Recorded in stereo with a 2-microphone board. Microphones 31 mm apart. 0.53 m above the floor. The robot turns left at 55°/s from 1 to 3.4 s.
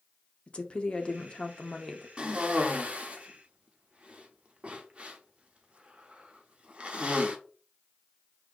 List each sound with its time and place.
0.5 s a woman speaking: 95° left, 0.7 m; by 2.1 s 35° left, 0.7 m
2.2 s a cough: 30° right (ahead or behind), 0.9 m; by 7.4 s 40° right (ahead or behind), 0.9 m